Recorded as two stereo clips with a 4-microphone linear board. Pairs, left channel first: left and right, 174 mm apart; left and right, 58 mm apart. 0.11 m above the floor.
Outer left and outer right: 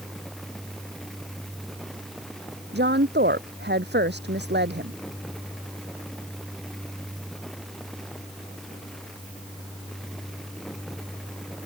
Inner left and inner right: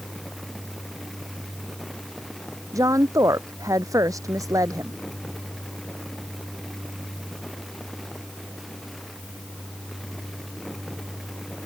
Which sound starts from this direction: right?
A woman speaking, at 2.7 s.